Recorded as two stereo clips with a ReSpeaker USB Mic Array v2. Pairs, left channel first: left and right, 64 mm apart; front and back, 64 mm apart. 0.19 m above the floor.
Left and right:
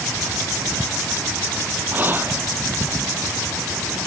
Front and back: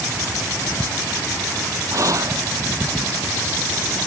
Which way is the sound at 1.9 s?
150° right.